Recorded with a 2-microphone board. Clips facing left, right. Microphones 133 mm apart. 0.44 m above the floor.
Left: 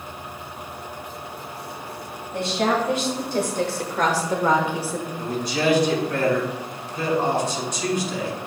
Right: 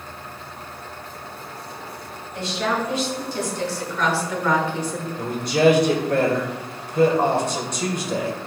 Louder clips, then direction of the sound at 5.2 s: Right 7 dB; 55° right (ahead or behind).